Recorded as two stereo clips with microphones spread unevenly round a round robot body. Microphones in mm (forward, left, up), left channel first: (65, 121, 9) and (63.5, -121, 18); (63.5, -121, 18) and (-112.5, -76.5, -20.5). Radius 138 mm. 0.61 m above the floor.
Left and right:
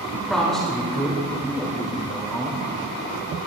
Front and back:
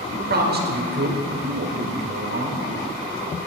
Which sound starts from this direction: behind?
A man speaking, at 0.1 s.